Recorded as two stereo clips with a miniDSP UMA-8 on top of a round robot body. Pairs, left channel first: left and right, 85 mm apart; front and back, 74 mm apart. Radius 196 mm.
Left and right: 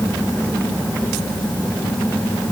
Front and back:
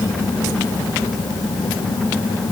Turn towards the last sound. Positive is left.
No sound to turn to.